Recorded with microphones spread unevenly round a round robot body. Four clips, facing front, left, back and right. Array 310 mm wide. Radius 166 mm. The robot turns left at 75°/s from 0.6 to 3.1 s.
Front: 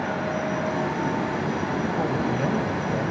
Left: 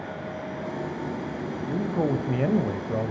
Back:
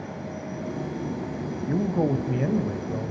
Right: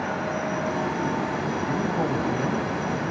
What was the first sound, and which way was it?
A man speaking, 165° right.